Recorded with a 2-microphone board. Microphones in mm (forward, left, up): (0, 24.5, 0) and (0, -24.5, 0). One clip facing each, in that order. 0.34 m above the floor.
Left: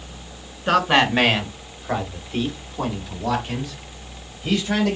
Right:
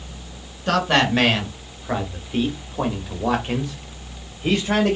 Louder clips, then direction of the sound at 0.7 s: Left 1 dB; 15° left (ahead or behind).